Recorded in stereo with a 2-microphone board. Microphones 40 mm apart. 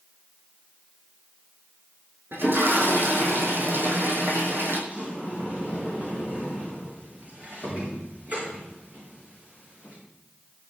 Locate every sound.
2.3 s a toilet flushing: 75° right (ahead or behind), 3.5 m
4.9 s a sliding door: 40° right (ahead or behind), 8.5 m